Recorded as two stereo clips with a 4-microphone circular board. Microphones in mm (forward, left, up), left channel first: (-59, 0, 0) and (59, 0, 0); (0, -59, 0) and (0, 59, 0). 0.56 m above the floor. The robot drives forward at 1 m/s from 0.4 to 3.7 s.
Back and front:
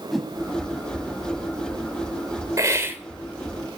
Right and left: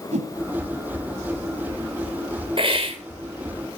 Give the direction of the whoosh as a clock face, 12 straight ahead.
9 o'clock.